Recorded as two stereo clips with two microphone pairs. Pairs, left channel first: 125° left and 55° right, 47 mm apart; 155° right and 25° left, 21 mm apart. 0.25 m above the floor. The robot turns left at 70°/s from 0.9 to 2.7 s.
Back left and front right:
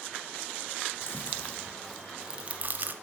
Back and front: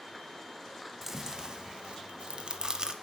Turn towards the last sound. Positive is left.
turn(degrees=-20)